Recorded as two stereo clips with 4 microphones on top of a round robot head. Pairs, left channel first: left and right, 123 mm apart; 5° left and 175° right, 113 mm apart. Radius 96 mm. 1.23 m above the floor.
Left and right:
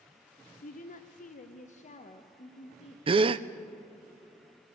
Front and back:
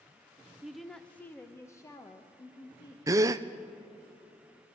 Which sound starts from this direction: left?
A woman speaking, at 0.6 s.